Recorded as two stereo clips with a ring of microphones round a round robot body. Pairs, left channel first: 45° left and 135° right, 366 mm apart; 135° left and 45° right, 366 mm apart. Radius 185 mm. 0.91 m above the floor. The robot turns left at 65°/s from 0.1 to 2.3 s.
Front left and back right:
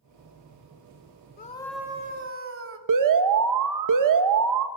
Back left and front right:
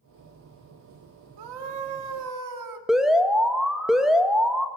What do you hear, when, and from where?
1.4 s a scream: 20° right, 2.5 m; by 2.8 s 80° right, 2.5 m
2.9 s an alarm: 135° right, 1.6 m